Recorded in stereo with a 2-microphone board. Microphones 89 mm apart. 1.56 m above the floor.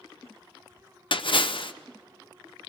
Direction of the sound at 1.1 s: 60° left (ahead or behind).